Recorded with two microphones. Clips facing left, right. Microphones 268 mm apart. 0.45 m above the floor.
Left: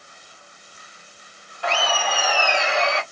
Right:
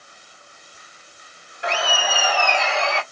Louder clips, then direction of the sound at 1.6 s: Even; 20° right (ahead or behind).